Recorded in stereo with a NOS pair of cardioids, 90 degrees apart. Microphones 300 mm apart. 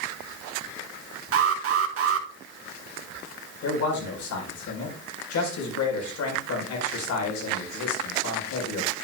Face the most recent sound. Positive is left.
turn(degrees=65)